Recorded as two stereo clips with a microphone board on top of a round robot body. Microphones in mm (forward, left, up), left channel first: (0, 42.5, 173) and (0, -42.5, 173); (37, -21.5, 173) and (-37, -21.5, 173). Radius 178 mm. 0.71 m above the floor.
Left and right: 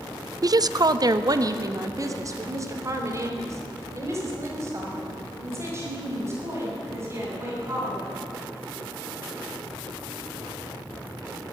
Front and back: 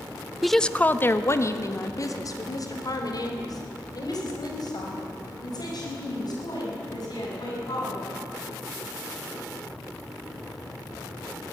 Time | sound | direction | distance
0.4 | a woman speaking | 95° right | 1.1 m